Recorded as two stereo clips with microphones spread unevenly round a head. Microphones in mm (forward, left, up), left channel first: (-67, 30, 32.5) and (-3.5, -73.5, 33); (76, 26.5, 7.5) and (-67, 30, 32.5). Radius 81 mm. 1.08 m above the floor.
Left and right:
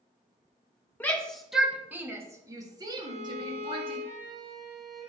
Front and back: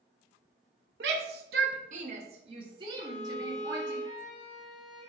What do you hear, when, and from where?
1.0 s a shout: 165° right, 1.3 m; by 4.0 s 105° right, 2.5 m
3.0 s a violin: 45° right, 1.9 m